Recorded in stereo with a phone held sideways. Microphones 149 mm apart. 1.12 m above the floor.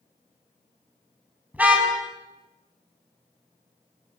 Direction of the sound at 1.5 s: 10° right (ahead or behind).